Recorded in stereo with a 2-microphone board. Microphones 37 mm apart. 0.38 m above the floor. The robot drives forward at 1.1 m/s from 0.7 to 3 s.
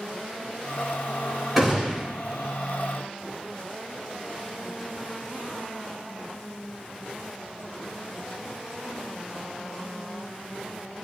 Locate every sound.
1.6 s a gunshot: 5° right (ahead or behind), 3 m